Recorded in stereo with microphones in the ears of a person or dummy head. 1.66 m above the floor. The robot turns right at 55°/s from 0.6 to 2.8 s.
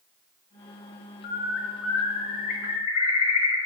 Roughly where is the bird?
Ahead left.